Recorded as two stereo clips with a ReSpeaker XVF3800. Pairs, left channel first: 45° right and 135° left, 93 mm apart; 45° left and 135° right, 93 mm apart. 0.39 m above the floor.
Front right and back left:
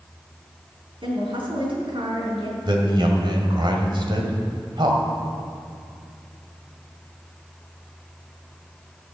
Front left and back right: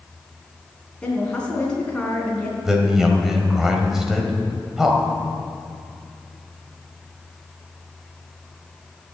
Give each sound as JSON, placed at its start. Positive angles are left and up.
{"t": 1.0, "sound": "a woman speaking", "azimuth_deg": 125, "distance_m": 4.0}
{"t": 2.6, "sound": "a man speaking", "azimuth_deg": 140, "distance_m": 2.0}